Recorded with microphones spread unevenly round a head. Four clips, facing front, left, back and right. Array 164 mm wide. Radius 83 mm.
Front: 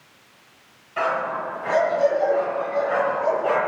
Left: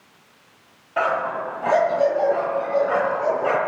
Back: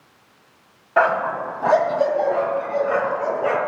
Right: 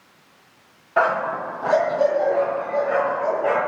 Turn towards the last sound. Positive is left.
turn(degrees=135)